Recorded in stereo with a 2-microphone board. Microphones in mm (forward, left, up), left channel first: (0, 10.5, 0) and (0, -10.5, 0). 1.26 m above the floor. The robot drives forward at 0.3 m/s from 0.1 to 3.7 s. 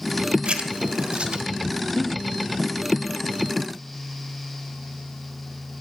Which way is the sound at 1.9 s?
50° left (ahead or behind).